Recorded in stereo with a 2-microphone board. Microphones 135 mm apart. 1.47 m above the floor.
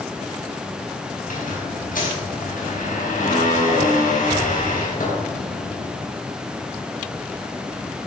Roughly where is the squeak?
Left.